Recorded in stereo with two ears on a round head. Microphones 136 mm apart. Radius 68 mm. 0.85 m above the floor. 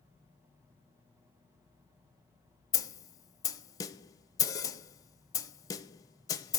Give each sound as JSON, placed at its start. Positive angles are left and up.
{"t": 2.7, "sound": "a snare drum", "side_deg": 25, "distance_m": 0.7}